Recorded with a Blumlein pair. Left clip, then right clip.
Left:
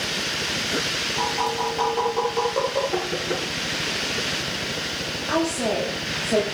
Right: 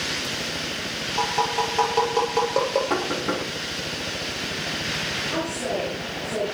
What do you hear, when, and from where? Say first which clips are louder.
1.2 s tapping: right 4 dB; 70° right, 7 m
2.9 s knocking: right 1 dB; 40° right, 10 m
5.3 s a woman speaking: left 3 dB; 60° left, 9 m